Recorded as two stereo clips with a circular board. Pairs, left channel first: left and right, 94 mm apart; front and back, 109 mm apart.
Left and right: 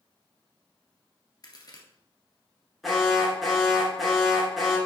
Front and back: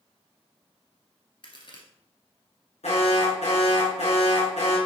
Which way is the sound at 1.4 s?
45° left.